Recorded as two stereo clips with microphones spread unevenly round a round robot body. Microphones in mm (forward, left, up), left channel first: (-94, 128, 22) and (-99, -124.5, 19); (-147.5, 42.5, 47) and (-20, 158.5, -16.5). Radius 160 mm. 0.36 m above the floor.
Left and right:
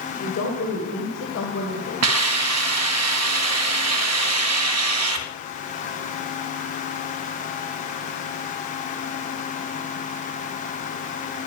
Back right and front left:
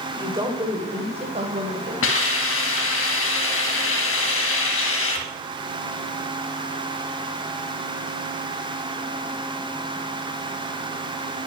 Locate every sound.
0.1 s a woman speaking: 95° left, 1.7 m; by 1.9 s 45° left, 2.0 m
2.0 s a hiss: 110° right, 1.5 m